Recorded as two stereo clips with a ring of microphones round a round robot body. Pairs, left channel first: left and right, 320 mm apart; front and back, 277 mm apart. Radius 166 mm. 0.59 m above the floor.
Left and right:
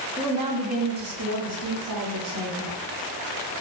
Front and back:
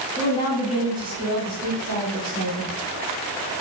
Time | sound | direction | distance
0.2 | a woman speaking | 15° right | 0.7 m